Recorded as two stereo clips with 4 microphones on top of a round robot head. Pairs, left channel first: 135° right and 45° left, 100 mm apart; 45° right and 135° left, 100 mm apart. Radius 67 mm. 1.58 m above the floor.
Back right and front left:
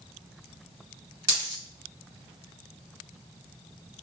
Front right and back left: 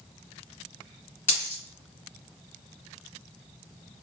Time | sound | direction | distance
1.3 | a dropped coin | 5° left | 1.6 m